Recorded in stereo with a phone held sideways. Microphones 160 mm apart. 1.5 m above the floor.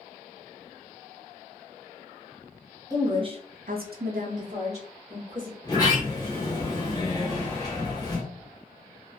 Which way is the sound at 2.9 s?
20° right (ahead or behind).